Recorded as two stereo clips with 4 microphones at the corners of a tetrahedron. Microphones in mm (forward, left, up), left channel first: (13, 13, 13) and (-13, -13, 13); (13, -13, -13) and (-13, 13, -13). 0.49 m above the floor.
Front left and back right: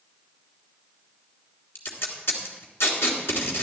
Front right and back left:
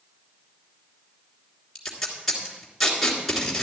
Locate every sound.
1.8 s tape being pulled: 35° left, 2.5 m